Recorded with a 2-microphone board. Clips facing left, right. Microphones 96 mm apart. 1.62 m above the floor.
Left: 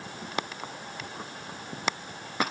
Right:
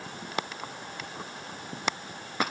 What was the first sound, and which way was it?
Only background noise.